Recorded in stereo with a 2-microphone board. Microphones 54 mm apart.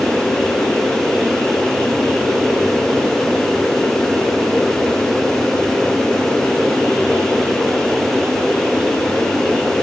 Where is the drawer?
I don't hear a drawer.